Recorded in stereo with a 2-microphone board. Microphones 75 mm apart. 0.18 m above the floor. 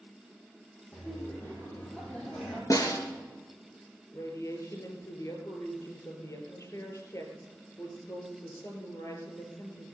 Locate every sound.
0.9 s laughter: 20° left (ahead or behind), 7 m; by 2.6 s 15° left (ahead or behind), 7 m
2.7 s a snare drum: 50° left (ahead or behind), 3.5 m
4.1 s a woman speaking: 45° left (ahead or behind), 4 m